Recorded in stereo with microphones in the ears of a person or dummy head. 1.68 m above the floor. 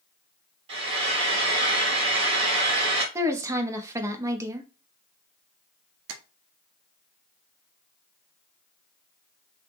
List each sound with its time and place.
0.7 s frying: 30° right (ahead or behind), 1.5 m
3.1 s a woman speaking: 15° right (ahead or behind), 0.6 m
6.1 s tapping: 65° right (ahead or behind), 0.5 m